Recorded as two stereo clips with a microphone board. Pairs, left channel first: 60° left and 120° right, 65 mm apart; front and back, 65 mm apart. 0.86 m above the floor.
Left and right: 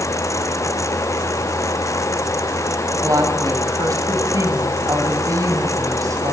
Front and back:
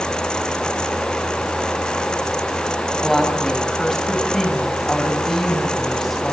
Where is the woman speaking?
85° right, 5.5 m.